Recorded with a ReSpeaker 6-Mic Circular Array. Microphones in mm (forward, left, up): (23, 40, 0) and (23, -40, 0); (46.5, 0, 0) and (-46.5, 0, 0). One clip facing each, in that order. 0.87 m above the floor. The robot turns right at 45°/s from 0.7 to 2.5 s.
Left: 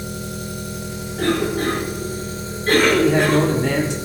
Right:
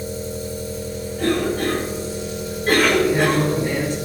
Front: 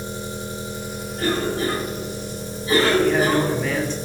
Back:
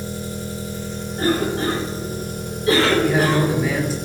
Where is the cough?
125° left, 5 m; by 3.4 s 170° right, 5 m.